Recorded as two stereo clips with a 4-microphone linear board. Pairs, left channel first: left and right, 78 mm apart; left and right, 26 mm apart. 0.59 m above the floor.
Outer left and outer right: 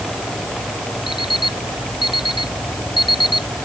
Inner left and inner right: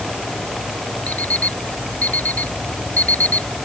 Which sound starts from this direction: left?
An alarm clock, at 1.1 s.